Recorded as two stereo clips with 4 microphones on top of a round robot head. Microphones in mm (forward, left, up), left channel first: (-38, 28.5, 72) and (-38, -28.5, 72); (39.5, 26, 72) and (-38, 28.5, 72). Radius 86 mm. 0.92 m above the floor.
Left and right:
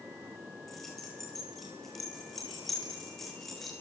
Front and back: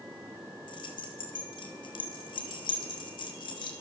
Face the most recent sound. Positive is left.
turn(degrees=5)